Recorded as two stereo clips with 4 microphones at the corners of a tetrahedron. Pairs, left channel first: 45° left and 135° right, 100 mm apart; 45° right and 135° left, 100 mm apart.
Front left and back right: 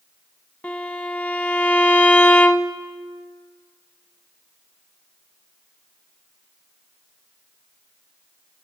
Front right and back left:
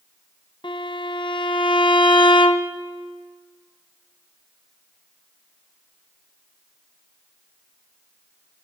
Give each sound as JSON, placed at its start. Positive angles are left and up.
{"t": 0.6, "sound": "a violin", "azimuth_deg": -30, "distance_m": 0.8}